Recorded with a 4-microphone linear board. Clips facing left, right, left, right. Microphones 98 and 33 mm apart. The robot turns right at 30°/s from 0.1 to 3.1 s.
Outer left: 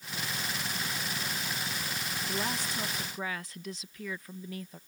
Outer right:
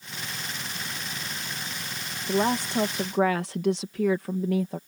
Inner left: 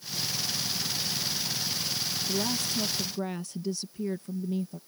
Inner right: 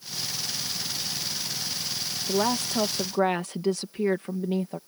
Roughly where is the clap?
No clap in this recording.